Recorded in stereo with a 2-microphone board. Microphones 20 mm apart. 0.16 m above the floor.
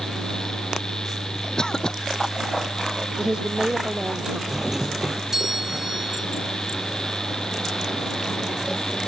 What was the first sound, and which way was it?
A cough, 40° left (ahead or behind).